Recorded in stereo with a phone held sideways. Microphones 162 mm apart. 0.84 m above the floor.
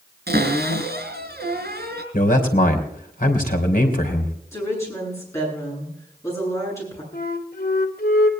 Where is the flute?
65° left (ahead or behind), 2.5 m.